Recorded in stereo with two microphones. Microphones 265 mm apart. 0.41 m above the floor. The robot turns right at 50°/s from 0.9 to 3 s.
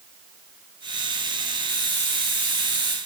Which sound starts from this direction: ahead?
A hiss, at 1.7 s.